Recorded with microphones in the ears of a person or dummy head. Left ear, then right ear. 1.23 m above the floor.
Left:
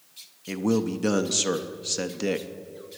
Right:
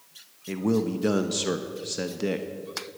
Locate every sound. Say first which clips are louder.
0.5 s a man speaking: even; 15° left (ahead or behind), 0.5 m